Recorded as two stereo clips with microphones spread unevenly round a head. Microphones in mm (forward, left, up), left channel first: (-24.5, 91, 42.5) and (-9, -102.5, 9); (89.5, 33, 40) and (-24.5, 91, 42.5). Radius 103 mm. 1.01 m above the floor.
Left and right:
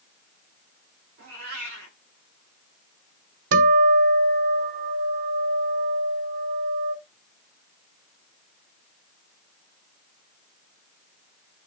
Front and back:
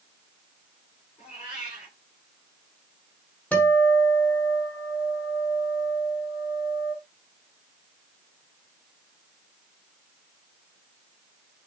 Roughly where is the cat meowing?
Right.